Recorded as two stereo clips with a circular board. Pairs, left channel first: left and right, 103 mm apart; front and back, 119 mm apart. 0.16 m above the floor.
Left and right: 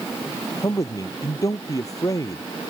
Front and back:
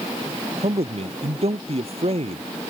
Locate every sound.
0.6 s a man speaking: 145° left